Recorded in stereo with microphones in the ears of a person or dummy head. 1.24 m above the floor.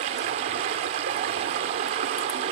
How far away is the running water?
About 1.0 m.